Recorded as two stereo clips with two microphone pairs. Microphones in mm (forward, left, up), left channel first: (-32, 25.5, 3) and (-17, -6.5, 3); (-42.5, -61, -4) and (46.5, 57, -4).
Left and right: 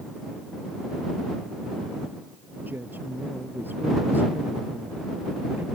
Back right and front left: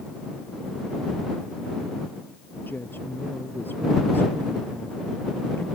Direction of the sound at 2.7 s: 50° right.